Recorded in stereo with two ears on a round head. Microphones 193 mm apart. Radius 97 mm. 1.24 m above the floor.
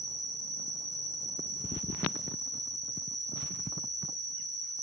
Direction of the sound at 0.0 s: Centre (ahead or behind).